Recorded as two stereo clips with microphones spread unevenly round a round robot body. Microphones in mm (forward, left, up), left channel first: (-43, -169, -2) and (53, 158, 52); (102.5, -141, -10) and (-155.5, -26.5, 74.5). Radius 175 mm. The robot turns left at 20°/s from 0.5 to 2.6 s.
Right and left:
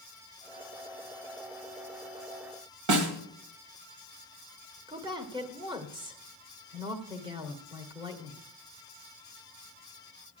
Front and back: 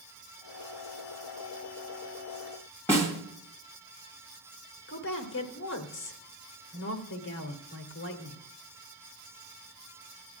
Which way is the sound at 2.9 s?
55° left.